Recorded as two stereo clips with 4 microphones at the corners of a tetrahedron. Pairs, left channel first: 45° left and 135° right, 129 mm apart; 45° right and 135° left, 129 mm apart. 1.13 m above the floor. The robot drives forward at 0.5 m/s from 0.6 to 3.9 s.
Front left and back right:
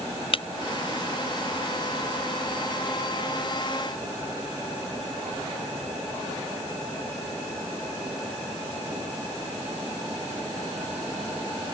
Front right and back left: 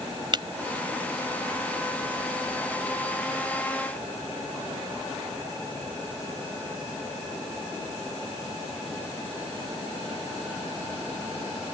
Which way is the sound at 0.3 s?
85° left.